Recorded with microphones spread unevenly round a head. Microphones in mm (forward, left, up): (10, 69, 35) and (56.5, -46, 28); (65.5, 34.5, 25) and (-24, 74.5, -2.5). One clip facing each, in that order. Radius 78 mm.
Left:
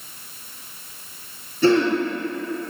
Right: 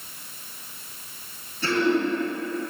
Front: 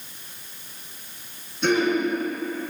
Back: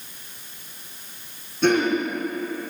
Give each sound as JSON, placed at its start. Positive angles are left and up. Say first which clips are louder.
{"t": 1.6, "sound": "throat clearing", "louder": "left 5 dB, back 2 dB", "azimuth_deg": 115, "distance_m": 4.5}